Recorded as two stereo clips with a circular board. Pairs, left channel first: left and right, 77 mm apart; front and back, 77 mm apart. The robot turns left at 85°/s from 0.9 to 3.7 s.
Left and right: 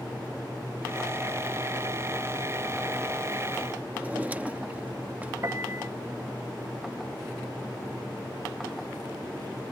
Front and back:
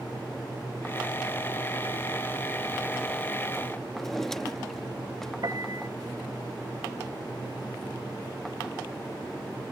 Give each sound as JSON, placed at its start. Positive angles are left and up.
{"t": 3.9, "sound": "a drawer", "azimuth_deg": -75}
{"t": 5.4, "sound": "a piano", "azimuth_deg": -140}